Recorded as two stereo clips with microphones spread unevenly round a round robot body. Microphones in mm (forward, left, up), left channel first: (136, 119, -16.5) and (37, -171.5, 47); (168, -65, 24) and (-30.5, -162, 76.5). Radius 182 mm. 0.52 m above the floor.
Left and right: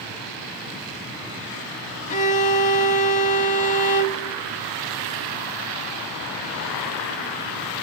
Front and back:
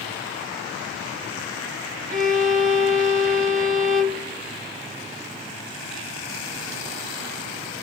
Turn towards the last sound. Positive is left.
turn(degrees=145)